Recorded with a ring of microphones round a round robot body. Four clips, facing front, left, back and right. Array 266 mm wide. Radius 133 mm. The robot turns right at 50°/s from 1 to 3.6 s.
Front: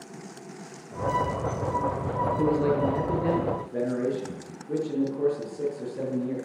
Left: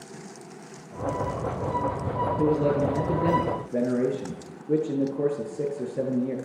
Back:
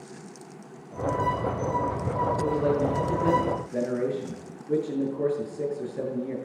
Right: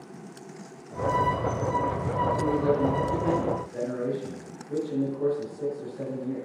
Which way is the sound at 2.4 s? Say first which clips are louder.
Left 4 dB, front 3 dB; 40° left.